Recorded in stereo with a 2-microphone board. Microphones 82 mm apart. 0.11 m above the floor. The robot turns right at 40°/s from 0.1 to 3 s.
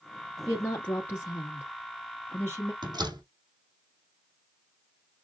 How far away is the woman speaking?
About 1.8 m.